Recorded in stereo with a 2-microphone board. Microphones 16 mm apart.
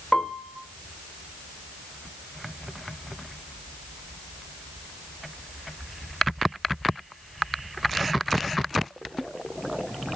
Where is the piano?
60° left (ahead or behind), 1.4 m.